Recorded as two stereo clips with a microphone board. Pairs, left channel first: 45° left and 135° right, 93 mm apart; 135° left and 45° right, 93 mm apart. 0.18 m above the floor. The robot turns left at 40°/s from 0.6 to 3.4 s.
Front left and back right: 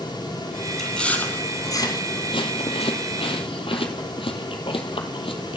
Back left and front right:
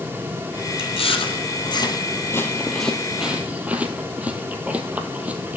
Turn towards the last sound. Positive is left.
turn(degrees=30)